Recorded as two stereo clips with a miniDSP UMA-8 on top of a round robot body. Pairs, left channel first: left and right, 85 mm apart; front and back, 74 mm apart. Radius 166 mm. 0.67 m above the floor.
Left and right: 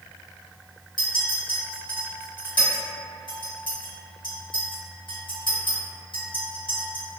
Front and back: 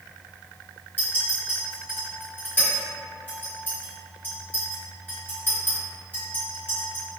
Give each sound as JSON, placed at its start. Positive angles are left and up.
{"t": 1.0, "sound": "a clink", "azimuth_deg": 65, "distance_m": 1.7}